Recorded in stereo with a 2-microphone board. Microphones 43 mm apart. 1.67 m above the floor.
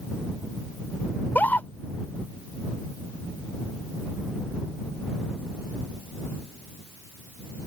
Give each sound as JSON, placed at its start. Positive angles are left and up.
{"t": 1.1, "sound": "a scream", "side_deg": 45}